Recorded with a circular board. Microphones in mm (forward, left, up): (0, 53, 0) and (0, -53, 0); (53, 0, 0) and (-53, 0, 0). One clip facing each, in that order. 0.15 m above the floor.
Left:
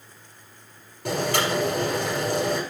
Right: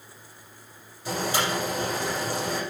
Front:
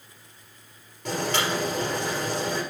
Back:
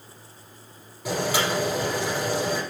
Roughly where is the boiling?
Left.